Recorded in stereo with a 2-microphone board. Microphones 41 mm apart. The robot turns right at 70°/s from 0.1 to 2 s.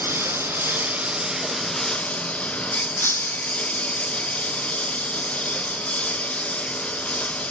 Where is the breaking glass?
70° left (ahead or behind).